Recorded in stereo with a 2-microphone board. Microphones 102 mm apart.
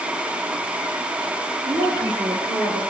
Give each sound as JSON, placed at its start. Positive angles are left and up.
{"t": 1.6, "sound": "a woman speaking", "side_deg": -45, "distance_m": 4.5}